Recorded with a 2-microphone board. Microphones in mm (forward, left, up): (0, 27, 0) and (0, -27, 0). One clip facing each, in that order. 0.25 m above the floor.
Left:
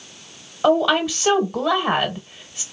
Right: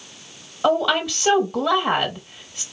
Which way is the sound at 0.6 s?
5° left (ahead or behind).